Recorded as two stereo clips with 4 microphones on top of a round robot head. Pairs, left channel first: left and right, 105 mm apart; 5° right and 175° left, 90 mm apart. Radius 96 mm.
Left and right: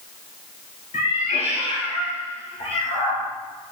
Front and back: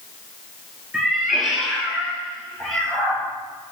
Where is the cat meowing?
90° left, 5 m; by 3.2 s 85° left, 7 m.